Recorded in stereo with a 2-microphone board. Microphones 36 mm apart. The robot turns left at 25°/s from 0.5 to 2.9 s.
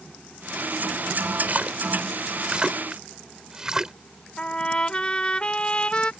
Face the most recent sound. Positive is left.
turn(degrees=30)  # may be behind; listen again after turning